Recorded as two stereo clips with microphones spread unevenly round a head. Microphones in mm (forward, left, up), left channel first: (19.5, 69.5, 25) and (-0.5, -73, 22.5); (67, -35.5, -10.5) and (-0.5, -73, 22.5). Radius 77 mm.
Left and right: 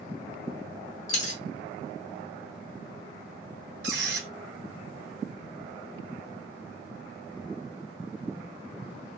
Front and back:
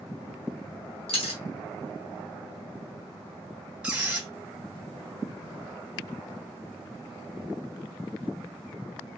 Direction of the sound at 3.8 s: 85° right.